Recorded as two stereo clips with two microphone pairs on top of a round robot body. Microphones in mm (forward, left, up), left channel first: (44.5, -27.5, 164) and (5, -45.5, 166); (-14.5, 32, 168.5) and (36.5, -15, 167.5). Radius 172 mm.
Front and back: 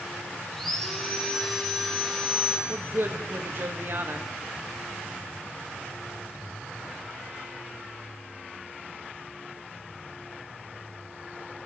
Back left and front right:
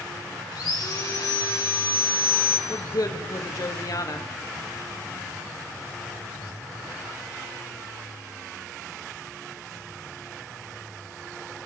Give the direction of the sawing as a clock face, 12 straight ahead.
8 o'clock.